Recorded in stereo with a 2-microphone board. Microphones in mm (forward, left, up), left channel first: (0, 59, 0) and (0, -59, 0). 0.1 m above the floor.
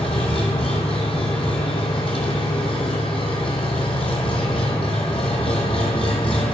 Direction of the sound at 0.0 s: 55° left (ahead or behind).